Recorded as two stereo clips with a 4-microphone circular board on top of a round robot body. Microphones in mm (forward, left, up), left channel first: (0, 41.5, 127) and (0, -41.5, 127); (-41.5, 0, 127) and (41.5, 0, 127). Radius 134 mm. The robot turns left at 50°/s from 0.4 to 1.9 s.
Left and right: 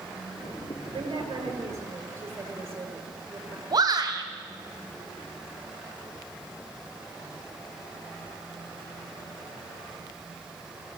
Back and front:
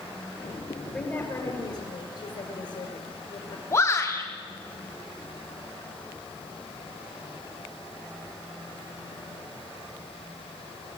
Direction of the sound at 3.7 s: 125° right.